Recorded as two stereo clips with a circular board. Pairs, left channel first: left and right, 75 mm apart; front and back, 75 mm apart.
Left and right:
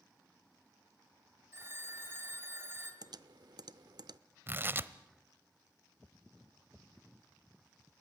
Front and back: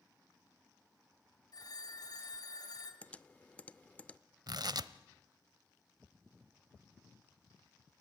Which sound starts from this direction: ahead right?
A phone ringing, at 1.5 s.